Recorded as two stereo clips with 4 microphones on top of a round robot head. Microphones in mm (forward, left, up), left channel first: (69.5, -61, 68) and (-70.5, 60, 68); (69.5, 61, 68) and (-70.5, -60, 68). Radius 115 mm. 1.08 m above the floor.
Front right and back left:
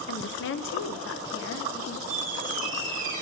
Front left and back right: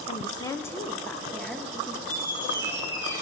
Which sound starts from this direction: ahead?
A woman speaking, at 0.1 s.